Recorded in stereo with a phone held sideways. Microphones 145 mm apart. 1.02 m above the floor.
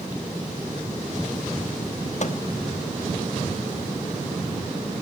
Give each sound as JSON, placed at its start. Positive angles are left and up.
{"t": 2.2, "sound": "a microwave", "side_deg": 55, "distance_m": 1.2}